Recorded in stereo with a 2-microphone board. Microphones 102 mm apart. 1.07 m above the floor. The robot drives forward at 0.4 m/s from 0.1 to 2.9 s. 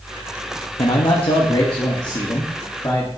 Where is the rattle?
I don't hear a rattle.